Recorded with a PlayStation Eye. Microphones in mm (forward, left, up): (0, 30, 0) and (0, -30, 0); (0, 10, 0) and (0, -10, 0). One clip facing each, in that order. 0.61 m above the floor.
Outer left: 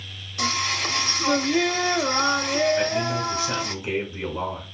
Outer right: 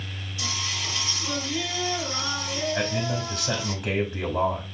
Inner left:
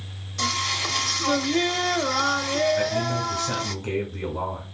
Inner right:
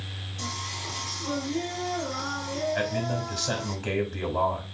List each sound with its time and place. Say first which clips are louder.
0.4 s singing: outer left 8 dB, inner left 10 dB; 60° left (ahead or behind), 0.9 m
2.8 s a man speaking: outer left 4 dB, inner left 4 dB; 75° right (ahead or behind), 4.5 m